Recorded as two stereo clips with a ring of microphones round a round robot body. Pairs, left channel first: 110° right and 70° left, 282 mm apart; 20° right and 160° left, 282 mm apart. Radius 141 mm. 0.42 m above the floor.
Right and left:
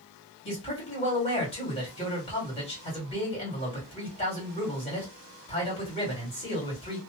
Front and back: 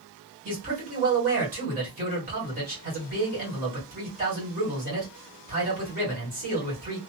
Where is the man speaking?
165° right, 1.7 m.